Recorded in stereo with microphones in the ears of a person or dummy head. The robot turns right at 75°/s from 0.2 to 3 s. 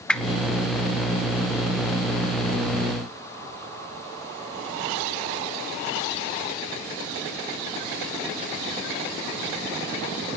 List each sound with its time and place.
0.1 s a whoosh: 5° left (ahead or behind), 0.6 m; by 0.4 s 10° right (ahead or behind), 0.6 m